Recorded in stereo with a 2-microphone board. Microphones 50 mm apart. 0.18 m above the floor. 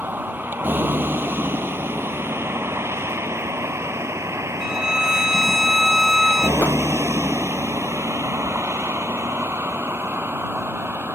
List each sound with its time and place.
0.0 s a vehicle: 40° right (ahead or behind); by 11.2 s 45° right (ahead or behind)
4.6 s a violin: 10° right (ahead or behind)
6.6 s a whoosh: 35° left (ahead or behind)